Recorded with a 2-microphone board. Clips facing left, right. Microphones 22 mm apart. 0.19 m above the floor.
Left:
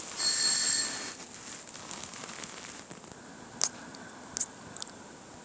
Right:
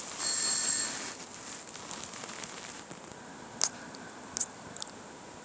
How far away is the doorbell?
About 5 m.